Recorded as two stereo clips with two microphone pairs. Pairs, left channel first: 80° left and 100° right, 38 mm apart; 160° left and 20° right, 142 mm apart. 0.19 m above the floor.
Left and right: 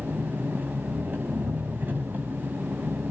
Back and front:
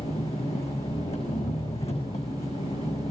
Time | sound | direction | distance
0.0 | an engine running | 150° right | 6.5 m